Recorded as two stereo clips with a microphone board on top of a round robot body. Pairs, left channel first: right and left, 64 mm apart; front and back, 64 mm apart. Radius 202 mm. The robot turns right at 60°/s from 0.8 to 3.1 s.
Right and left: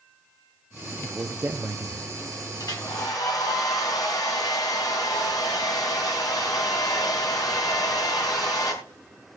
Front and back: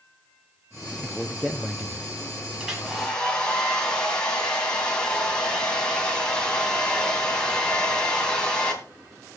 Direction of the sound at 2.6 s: 105° right.